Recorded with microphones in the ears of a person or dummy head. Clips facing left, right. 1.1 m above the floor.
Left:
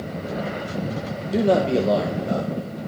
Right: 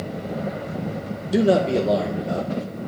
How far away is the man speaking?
About 0.6 m.